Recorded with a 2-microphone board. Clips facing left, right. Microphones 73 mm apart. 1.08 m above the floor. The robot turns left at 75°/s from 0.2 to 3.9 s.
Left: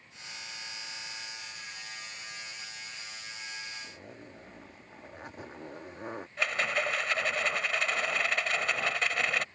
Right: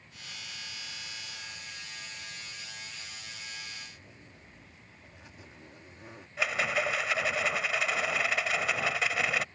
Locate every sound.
3.8 s a zipper: 55° left (ahead or behind); by 6.3 s 50° left (ahead or behind)
6.4 s a rattle: 5° right (ahead or behind)